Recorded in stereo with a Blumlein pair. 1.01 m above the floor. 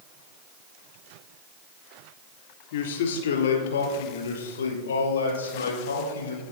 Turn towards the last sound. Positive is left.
turn(degrees=70)